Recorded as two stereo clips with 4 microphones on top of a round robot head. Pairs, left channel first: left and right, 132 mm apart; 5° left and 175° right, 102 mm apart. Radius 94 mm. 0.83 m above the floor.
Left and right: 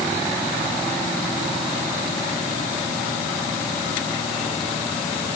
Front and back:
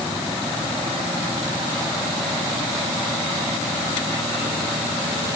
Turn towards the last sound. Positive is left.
No sound to turn to.